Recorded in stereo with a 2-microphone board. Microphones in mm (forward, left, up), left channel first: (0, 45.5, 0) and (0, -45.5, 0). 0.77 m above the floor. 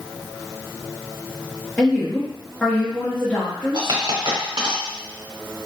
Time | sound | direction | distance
1.8 | a woman speaking | 10° left (ahead or behind) | 0.9 m
3.7 | a dropped coin | 55° right (ahead or behind) | 1.0 m